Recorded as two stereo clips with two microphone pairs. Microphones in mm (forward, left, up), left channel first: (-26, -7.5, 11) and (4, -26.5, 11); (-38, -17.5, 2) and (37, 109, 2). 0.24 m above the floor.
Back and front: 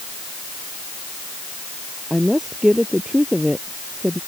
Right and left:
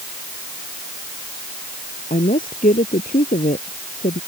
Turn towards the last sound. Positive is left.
turn(degrees=-105)